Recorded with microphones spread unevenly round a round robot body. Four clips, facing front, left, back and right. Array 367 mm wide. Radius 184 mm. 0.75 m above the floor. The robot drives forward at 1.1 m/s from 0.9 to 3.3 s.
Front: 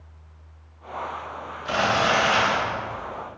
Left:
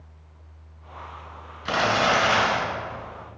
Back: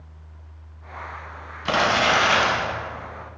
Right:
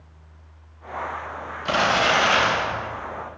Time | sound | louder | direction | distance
1.6 | crumpling | right 1 dB, back 2 dB | 170° left | 5.5 m